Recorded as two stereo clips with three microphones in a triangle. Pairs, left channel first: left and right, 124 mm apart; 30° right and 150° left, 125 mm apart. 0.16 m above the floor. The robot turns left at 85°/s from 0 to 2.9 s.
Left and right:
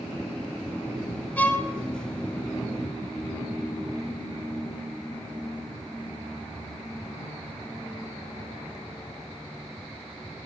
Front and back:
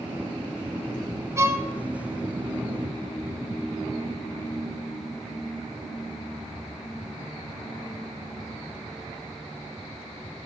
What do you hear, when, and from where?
1.4 s a violin: 150° left, 0.8 m; by 1.7 s 125° left, 0.8 m